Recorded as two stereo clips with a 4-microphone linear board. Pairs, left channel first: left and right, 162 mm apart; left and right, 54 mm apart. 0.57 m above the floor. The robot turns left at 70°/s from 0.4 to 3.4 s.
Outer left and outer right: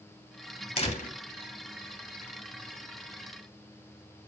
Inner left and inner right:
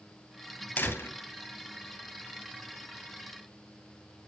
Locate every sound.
0.8 s a door slam: 35° left (ahead or behind), 2.5 m; by 1.2 s 65° left (ahead or behind), 2.5 m